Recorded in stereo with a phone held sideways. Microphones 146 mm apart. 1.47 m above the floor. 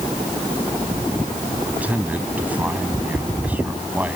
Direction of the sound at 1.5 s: 10° right (ahead or behind).